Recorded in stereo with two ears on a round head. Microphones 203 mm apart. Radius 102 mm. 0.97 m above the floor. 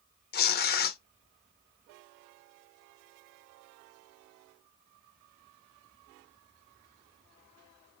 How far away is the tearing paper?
About 0.6 m.